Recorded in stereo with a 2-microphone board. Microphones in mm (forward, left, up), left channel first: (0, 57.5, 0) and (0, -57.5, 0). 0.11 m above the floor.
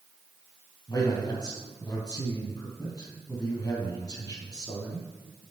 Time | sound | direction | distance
0.9 | a man speaking | 35° left (ahead or behind) | 3 m